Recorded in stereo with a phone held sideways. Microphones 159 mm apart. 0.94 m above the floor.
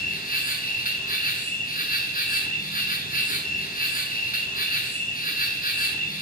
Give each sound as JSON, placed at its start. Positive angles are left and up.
{"t": 0.0, "sound": "an insect", "side_deg": 60, "distance_m": 1.4}